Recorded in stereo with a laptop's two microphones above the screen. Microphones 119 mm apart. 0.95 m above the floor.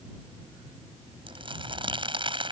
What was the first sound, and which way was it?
Crumpling, 40° right (ahead or behind).